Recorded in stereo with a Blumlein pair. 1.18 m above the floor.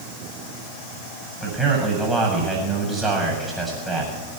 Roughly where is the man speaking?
Ahead.